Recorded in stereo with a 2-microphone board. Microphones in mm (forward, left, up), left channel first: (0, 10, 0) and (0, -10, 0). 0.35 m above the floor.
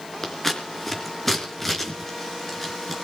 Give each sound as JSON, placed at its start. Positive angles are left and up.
{"t": 0.2, "sound": "scissors", "side_deg": 10, "distance_m": 4.0}